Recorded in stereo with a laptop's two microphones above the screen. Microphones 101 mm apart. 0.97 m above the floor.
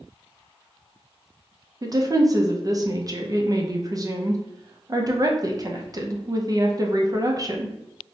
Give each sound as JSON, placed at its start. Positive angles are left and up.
{"t": 1.8, "sound": "a woman speaking", "side_deg": -35, "distance_m": 0.5}